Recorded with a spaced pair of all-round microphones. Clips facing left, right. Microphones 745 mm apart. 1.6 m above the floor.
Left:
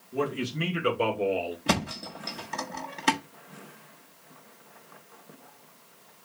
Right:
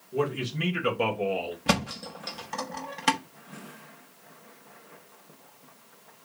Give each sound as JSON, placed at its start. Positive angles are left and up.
{"t": 0.1, "sound": "a man speaking", "side_deg": -25, "distance_m": 2.5}
{"t": 1.7, "sound": "a thud", "side_deg": -25, "distance_m": 1.4}